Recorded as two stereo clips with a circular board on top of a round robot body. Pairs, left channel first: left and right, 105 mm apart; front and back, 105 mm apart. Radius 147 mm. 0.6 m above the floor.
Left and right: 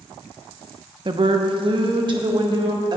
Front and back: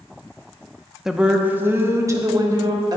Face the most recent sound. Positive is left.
turn(degrees=-130)